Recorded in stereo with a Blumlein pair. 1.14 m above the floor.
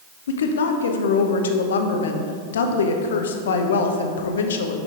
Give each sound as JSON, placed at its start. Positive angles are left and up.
{"t": 0.3, "sound": "a woman speaking", "azimuth_deg": 60, "distance_m": 0.8}